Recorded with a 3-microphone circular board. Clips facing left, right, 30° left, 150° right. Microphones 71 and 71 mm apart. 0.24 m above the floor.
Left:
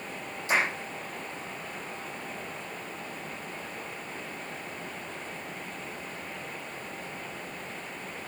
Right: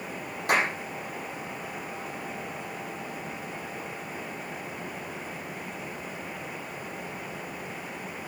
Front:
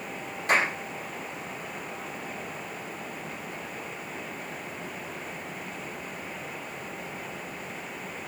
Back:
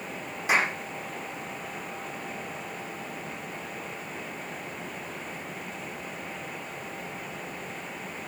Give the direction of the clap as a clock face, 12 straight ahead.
2 o'clock.